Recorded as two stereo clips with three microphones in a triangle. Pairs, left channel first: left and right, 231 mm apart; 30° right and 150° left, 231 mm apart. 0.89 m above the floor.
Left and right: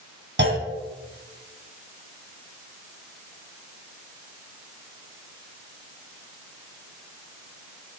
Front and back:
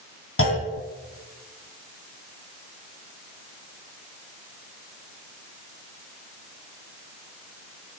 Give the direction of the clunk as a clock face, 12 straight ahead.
2 o'clock.